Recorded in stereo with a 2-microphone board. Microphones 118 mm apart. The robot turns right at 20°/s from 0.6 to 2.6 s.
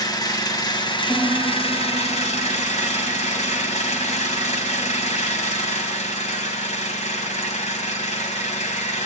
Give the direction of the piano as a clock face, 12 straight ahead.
6 o'clock.